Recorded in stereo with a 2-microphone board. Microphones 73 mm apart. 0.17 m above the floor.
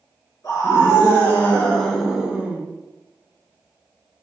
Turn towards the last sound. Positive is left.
turn(degrees=-25)  # may be behind; listen again after turning